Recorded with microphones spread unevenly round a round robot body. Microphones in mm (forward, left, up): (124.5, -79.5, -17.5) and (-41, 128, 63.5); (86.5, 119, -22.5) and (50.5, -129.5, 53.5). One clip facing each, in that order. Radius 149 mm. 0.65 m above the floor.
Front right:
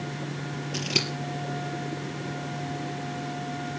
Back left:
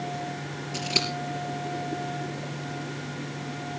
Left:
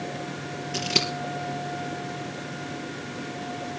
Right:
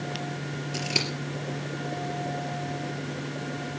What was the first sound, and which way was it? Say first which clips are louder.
Scissors: even, left 4 dB; 10° left.